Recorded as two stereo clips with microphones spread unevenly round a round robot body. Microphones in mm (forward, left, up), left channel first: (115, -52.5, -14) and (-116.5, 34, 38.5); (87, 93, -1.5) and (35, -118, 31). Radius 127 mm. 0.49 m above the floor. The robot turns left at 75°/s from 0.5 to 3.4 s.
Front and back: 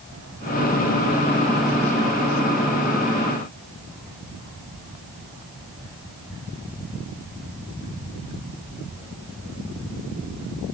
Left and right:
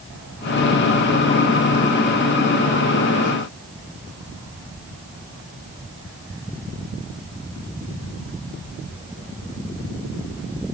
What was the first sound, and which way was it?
Only background noise.